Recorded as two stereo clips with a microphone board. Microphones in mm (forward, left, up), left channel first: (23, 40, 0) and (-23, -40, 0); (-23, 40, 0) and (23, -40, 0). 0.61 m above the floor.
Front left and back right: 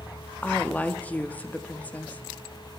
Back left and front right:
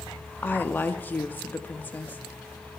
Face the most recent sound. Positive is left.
turn(degrees=95)